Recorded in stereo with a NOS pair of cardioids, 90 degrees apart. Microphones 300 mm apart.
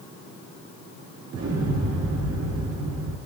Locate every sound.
1.3 s an explosion: 60° right, 2.5 m